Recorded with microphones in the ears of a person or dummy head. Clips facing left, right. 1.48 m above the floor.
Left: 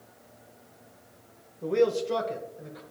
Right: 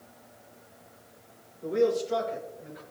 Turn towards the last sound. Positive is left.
turn(degrees=55)  # may be behind; listen again after turning